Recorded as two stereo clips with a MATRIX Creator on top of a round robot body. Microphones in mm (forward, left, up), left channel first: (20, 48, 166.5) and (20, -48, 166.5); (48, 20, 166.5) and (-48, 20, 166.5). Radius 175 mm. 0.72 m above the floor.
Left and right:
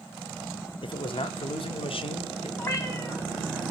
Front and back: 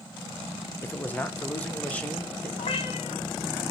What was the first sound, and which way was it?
A man speaking, 70° left.